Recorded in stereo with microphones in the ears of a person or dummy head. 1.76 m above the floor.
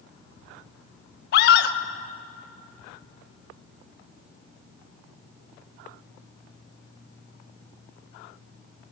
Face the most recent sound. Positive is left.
turn(degrees=70)  # may be behind; listen again after turning